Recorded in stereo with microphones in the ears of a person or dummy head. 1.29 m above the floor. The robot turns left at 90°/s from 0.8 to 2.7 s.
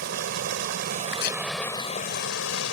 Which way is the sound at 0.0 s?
115° right.